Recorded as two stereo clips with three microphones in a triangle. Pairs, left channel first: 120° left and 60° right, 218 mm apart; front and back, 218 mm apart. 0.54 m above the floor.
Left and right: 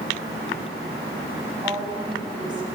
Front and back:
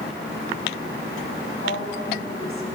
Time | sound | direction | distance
1.6 | a woman speaking | 10° left | 5 m